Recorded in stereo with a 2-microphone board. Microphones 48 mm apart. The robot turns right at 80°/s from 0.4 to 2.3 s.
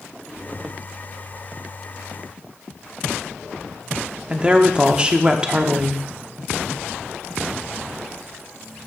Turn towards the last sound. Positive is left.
turn(degrees=-20)  # may be behind; listen again after turning